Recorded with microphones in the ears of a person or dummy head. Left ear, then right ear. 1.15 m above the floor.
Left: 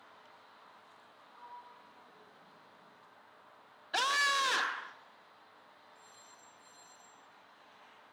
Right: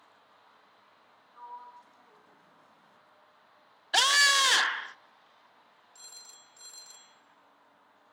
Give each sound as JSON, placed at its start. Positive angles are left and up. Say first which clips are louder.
{"t": 1.3, "sound": "a sliding door", "louder": "right 6 dB", "side_deg": -70, "distance_m": 6.0}
{"t": 3.9, "sound": "a scream", "louder": "right 7 dB", "side_deg": -30, "distance_m": 0.5}
{"t": 6.0, "sound": "a phone ringing", "louder": "right 12 dB", "side_deg": -80, "distance_m": 3.0}